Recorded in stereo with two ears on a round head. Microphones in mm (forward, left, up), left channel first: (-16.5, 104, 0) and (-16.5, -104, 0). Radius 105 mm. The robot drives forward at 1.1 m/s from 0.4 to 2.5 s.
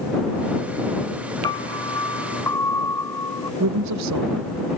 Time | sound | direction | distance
1.4 | a piano | 20° left (ahead or behind) | ?
3.6 | a woman speaking | 75° right (ahead or behind) | ?